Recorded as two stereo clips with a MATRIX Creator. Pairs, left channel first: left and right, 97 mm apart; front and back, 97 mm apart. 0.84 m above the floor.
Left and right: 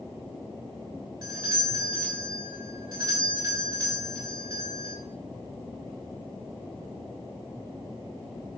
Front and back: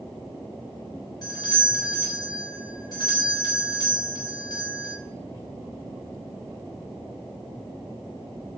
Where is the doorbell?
45° right, 6 m.